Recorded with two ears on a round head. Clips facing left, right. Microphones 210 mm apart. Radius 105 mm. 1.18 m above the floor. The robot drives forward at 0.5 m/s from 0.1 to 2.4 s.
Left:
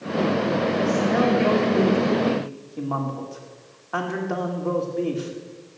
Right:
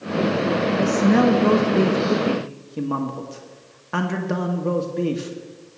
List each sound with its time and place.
0.8 s a man speaking: 55° right (ahead or behind), 1.2 m; by 5.3 s 35° right (ahead or behind), 1.7 m